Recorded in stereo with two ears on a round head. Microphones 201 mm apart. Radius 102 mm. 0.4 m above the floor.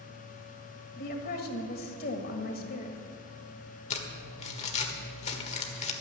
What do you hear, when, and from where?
1.0 s a woman speaking: 40° left (ahead or behind), 1.7 m
3.9 s crumpling: 30° left (ahead or behind), 1.5 m